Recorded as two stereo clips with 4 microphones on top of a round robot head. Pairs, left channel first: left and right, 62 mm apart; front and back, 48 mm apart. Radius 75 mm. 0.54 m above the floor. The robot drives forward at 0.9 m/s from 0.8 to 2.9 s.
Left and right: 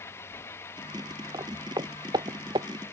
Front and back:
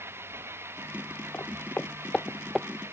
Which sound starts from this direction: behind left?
An engine running, at 0.0 s.